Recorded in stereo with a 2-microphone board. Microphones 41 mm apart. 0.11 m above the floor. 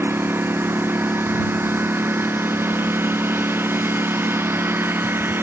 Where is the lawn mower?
65° right (ahead or behind).